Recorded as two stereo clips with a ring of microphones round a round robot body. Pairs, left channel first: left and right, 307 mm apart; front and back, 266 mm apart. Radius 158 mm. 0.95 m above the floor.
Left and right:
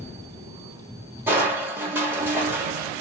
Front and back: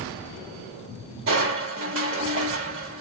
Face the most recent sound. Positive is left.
turn(degrees=-170)